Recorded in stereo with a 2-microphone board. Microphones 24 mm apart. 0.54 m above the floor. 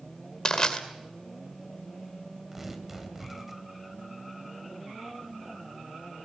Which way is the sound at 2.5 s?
15° right (ahead or behind).